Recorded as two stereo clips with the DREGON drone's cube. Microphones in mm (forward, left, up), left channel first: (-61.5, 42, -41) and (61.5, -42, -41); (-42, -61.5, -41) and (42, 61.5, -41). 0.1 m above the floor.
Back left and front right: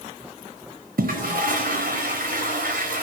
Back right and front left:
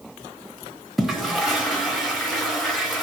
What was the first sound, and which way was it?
A toilet flushing, 35° right.